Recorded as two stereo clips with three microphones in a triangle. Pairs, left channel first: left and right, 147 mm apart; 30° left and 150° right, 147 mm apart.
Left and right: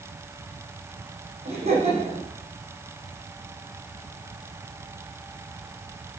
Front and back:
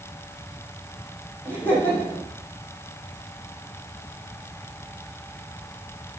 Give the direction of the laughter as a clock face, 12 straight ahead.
2 o'clock.